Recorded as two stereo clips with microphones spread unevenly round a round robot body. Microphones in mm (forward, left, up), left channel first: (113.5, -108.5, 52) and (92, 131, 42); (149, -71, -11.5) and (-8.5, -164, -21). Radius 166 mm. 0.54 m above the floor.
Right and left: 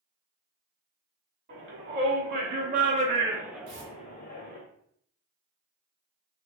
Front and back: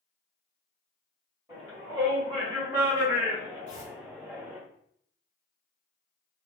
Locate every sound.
1.5 s a shout: 130° left, 2.0 m; by 4.6 s 60° right, 1.1 m
3.7 s tearing paper: 115° left, 1.4 m